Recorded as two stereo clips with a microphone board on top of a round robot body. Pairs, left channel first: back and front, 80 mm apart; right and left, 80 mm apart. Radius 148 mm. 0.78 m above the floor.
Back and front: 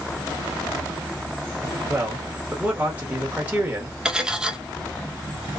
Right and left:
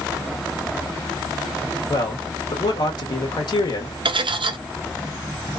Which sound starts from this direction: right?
A man speaking, at 1.9 s.